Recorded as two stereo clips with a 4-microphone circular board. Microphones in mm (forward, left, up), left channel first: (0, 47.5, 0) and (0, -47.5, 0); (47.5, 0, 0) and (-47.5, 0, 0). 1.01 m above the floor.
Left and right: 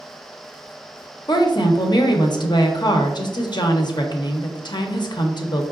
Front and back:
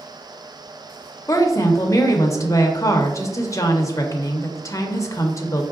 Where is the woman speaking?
55° left, 0.5 m.